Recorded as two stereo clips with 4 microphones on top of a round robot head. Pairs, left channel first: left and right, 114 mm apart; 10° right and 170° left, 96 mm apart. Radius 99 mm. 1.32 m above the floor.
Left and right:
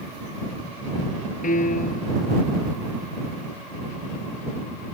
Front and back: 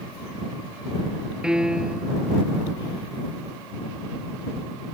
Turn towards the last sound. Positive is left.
turn(degrees=90)